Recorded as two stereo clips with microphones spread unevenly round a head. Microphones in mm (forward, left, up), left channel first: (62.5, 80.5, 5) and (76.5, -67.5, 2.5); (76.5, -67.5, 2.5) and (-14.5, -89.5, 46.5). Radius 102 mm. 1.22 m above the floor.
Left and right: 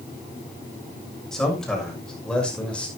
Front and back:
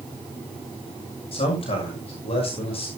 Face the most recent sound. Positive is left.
turn(degrees=15)